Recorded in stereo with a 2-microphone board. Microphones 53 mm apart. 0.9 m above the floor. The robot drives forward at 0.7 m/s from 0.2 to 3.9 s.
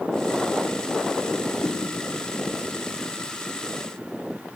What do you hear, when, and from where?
1.6 s a whoosh: 40° left (ahead or behind), 1.2 m; by 1.8 s 35° left (ahead or behind), 1.3 m